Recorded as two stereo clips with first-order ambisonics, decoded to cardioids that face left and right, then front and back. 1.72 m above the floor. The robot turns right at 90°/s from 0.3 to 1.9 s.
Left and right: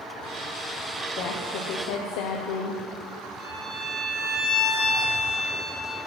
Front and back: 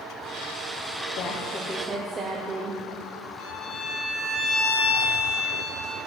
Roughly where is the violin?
Ahead.